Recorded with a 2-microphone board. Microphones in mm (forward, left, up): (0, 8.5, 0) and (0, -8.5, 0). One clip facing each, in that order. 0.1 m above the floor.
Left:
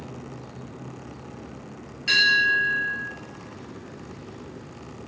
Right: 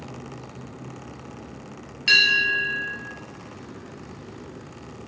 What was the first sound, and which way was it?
A bell, 25° right (ahead or behind).